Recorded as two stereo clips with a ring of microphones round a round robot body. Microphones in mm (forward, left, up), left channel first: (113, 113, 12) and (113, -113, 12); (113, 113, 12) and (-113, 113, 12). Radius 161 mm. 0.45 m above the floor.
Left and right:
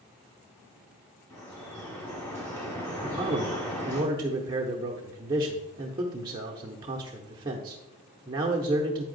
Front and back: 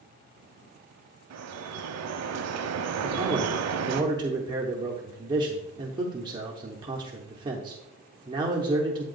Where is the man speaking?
135° right, 0.7 m.